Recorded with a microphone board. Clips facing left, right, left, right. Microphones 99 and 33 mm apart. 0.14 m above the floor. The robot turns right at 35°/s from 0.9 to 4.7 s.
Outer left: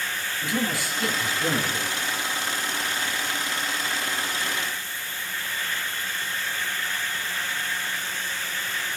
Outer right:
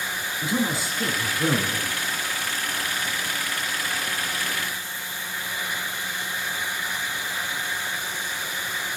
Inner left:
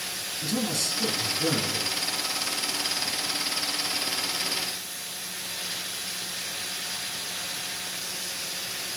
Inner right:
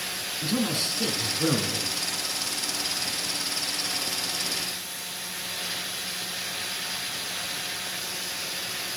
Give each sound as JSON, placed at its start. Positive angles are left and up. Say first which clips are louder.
{"t": 0.4, "sound": "a man speaking", "louder": "outer right 2 dB, inner right 2 dB", "azimuth_deg": -150, "distance_m": 3.5}